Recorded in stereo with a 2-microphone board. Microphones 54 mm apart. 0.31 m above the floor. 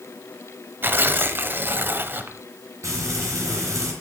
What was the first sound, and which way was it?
Tearing paper, 40° right (ahead or behind).